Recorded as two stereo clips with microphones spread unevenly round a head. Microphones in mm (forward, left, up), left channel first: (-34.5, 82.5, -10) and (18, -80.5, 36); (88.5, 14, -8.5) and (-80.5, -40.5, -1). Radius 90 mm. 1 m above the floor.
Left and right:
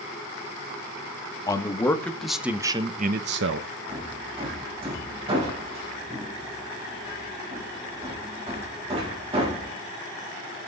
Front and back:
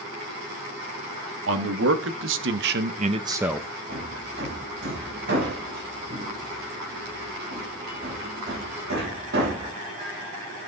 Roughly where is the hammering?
Behind right.